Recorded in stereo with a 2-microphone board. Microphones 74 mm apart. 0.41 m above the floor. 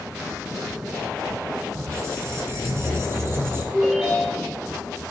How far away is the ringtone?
About 4 m.